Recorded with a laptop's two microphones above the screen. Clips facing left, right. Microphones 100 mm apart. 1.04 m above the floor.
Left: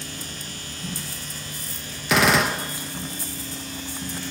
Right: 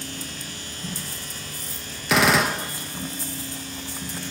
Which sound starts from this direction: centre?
A gunshot, at 2.1 s.